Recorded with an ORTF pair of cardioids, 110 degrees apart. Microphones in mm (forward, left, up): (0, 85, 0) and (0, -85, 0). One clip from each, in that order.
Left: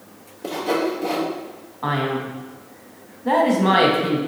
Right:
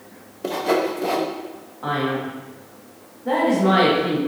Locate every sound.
0.4 s sawing: 15° right, 0.6 m
1.8 s a man speaking: 30° left, 1.2 m